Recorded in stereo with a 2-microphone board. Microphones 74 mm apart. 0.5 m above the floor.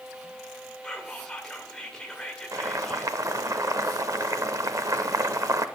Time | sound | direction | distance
0.8 | whispering | 10° left (ahead or behind) | 1.8 m
2.5 | boiling | 50° right (ahead or behind) | 0.6 m